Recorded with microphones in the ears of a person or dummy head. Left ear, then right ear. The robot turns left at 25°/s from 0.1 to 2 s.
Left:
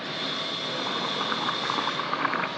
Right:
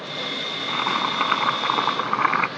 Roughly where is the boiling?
Ahead right.